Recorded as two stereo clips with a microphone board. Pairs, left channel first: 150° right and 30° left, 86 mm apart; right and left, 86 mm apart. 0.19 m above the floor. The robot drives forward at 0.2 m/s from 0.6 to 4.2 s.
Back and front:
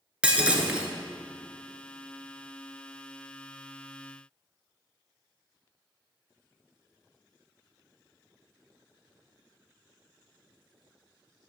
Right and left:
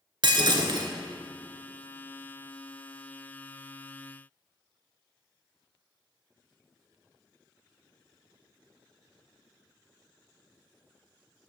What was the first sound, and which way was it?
Breaking glass, 105° left.